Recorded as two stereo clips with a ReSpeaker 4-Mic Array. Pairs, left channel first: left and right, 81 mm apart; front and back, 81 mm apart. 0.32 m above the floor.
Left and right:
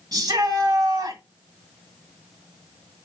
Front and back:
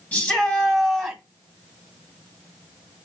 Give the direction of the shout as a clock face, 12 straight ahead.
2 o'clock.